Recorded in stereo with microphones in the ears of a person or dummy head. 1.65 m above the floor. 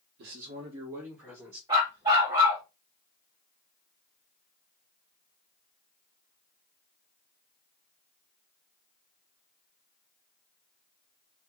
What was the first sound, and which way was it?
A man speaking, 55° right (ahead or behind).